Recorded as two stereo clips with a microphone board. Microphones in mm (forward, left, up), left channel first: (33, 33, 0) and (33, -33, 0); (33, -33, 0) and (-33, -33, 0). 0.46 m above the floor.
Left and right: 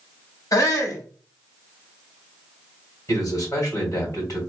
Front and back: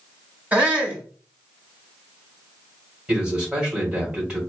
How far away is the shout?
About 3 m.